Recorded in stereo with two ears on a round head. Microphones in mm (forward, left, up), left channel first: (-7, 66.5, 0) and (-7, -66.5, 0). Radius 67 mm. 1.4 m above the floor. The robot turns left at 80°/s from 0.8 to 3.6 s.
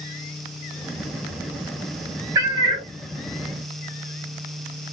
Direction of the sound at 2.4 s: 30° right.